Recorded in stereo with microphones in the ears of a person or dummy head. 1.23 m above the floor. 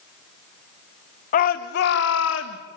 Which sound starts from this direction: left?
A shout, at 1.3 s.